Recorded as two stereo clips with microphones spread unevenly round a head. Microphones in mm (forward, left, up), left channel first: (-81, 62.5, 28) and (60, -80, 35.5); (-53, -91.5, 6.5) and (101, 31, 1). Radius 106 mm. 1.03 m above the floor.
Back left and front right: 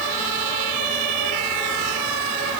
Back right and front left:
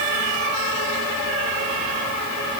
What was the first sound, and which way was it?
Only background noise.